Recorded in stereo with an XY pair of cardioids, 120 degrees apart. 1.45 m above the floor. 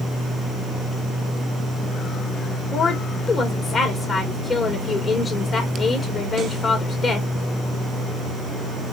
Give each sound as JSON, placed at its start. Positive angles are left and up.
{"t": 2.7, "sound": "a woman speaking", "azimuth_deg": 40, "distance_m": 1.2}